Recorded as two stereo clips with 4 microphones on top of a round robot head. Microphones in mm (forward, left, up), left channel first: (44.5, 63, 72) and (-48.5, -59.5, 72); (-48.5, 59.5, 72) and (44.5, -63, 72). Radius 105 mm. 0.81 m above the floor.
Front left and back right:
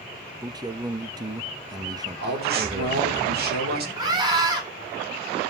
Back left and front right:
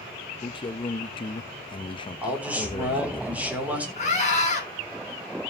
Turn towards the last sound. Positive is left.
turn(degrees=170)